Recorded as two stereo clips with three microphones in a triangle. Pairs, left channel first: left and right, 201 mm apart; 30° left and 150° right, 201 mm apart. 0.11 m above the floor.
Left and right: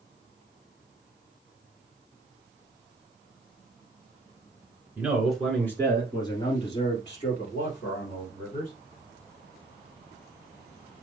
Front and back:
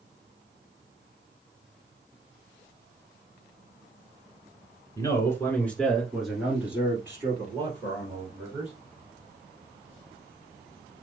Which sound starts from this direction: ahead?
A man speaking, at 5.0 s.